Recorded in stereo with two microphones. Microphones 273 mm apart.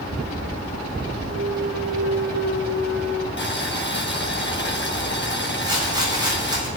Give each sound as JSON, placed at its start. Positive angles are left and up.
{"t": 1.3, "sound": "a clunk", "side_deg": -45, "distance_m": 0.9}
{"t": 3.4, "sound": "boiling", "side_deg": 40, "distance_m": 1.5}
{"t": 5.6, "sound": "a rattle", "side_deg": -15, "distance_m": 8.5}